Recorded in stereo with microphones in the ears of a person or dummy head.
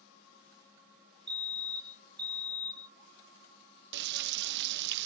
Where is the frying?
60° right (ahead or behind).